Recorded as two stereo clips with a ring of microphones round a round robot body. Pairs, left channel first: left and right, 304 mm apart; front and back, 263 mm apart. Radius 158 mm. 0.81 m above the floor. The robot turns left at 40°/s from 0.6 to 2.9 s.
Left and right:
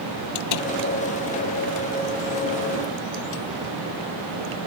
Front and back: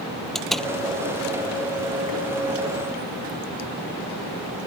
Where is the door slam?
90° left; by 0.7 s 85° left.